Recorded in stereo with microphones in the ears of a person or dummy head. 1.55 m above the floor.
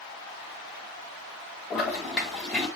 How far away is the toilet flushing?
About 3 m.